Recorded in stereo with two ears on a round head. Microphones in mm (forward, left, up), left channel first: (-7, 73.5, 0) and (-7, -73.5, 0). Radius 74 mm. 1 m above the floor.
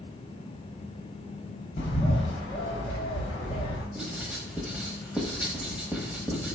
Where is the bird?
40° left (ahead or behind), 1.1 m.